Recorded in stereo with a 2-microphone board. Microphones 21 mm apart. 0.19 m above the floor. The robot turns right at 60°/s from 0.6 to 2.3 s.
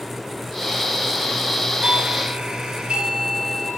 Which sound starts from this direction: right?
A doorbell, at 1.8 s.